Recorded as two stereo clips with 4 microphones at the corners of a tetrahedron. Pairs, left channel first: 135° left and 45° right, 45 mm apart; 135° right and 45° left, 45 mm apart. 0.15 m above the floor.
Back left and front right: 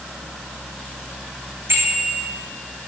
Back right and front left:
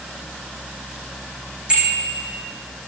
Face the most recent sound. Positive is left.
turn(degrees=-25)